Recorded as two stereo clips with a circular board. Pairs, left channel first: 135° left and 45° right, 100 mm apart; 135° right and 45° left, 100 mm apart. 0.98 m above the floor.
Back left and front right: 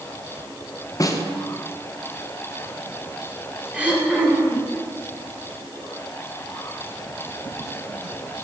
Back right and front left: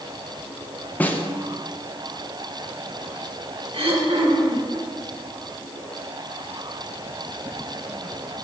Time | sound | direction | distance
1.0 | a snare drum | 160° left | 0.6 m
3.7 | throat clearing | 30° left | 1.2 m